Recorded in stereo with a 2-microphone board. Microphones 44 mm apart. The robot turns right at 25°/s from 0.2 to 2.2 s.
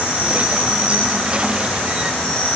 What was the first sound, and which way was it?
An insect, 35° right.